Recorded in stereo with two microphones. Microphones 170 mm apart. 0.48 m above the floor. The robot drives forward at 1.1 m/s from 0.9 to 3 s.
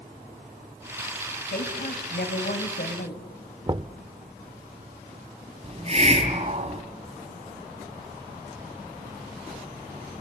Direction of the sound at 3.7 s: 30° right (ahead or behind).